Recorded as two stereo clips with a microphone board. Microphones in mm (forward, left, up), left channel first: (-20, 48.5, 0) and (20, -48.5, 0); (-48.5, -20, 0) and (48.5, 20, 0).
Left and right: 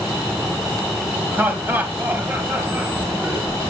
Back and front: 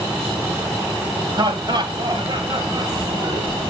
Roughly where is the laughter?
Ahead.